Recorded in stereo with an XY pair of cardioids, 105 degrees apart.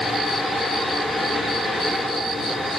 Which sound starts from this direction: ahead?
A fan, at 0.0 s.